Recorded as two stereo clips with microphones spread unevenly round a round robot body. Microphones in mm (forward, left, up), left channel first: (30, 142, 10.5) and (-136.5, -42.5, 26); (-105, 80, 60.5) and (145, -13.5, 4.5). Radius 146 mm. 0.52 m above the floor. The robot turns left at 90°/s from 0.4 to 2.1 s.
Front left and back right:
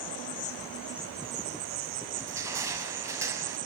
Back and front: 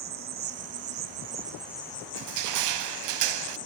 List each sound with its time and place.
0.0 s an insect: 5° left, 1.1 m; by 3.7 s 150° right, 1.1 m
2.1 s crushing: 50° right, 0.8 m